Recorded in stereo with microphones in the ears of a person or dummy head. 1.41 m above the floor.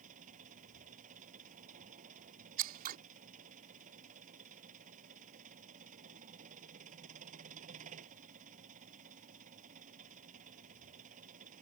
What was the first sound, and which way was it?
An engine running, 45° right (ahead or behind).